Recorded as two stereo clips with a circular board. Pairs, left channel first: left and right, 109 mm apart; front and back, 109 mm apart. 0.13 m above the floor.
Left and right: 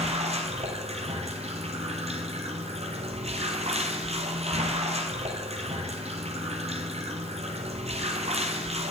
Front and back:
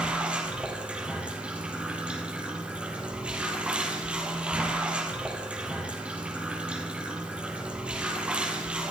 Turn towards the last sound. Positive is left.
turn(degrees=-100)